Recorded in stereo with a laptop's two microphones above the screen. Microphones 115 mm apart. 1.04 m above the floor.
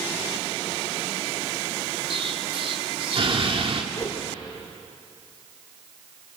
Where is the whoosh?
30° left (ahead or behind), 2 m.